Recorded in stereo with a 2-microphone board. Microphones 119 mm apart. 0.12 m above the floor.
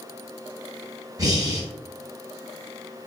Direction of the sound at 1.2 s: 30° right (ahead or behind).